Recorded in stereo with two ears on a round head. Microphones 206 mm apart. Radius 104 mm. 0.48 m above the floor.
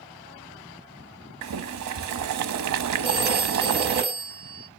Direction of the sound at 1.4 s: 80° right.